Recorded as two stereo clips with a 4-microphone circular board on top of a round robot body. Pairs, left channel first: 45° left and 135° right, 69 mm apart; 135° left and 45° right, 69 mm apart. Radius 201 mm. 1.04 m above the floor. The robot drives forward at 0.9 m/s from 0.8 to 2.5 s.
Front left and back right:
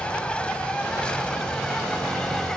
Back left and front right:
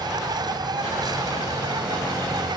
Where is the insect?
30° right; by 2.6 s 35° right.